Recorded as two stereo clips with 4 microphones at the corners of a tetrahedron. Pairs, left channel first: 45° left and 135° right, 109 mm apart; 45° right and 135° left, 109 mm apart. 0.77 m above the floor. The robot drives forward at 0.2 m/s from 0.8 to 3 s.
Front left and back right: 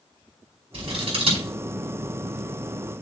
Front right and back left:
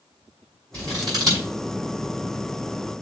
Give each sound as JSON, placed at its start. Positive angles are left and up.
{"t": 0.7, "sound": "scissors", "azimuth_deg": -170, "distance_m": 5.0}